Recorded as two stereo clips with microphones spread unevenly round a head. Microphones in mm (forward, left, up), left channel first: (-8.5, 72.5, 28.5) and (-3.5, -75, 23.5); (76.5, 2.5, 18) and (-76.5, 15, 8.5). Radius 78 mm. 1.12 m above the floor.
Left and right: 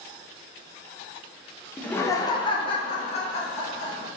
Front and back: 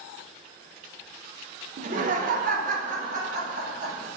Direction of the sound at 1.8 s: 175° left.